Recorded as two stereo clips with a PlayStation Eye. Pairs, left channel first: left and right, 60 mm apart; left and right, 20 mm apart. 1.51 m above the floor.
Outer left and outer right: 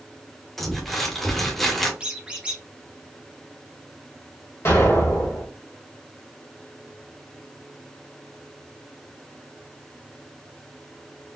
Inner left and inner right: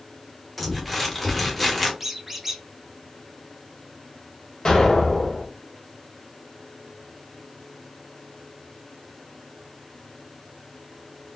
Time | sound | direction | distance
0.6 | crumpling | 5° left (ahead or behind) | 1.2 m
2.0 | a squeak | 20° right (ahead or behind) | 0.7 m
4.7 | an explosion | 50° left (ahead or behind) | 1.8 m